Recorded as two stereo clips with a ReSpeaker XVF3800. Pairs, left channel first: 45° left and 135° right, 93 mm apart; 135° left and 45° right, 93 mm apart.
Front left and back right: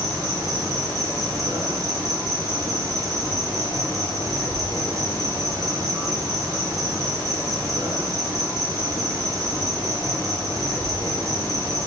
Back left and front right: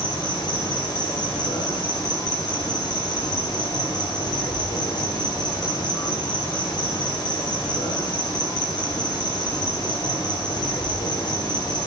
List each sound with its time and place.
0.0 s an insect: 175° left, 2 m